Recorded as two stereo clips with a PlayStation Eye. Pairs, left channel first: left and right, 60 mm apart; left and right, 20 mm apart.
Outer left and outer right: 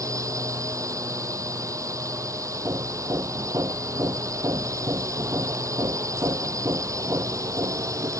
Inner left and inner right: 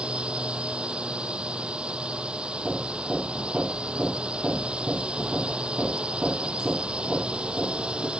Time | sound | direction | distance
0.0 | a drone | 60° right (ahead or behind) | ?
2.6 | hammering | 70° right (ahead or behind) | ?